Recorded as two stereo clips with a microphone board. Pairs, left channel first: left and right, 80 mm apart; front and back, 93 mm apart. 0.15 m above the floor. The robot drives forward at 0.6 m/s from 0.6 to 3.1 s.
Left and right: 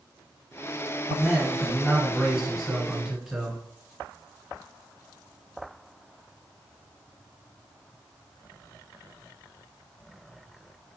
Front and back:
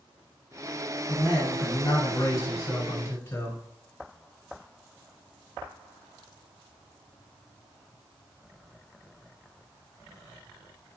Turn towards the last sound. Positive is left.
turn(degrees=-15)